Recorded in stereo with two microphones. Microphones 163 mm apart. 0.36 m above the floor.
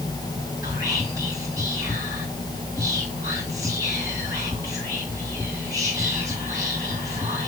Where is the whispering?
20° right (ahead or behind), 2 m.